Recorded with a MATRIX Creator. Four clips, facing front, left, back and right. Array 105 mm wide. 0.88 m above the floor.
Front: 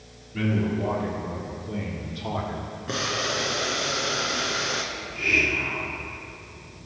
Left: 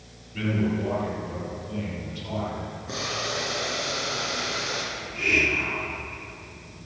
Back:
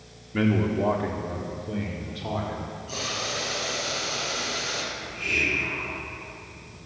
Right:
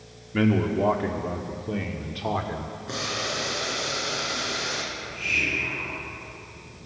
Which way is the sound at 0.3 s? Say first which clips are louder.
Right 4 dB, back 2 dB; 125° right.